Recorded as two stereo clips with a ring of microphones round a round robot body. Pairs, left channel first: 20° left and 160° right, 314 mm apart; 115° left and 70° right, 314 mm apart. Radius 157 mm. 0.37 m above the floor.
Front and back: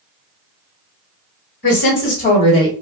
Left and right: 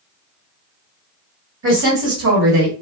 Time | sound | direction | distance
1.6 | a woman speaking | 25° right | 1.3 m